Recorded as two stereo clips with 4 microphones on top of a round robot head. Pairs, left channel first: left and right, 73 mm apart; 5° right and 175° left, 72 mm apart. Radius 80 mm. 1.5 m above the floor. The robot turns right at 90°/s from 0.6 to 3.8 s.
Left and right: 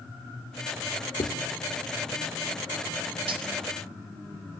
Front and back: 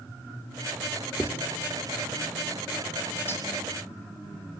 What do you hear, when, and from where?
1.2 s writing: 100° left, 2 m; by 1.4 s 115° left, 2 m
3.3 s cutlery clinking: 75° right, 1.2 m; by 3.5 s 60° right, 1.2 m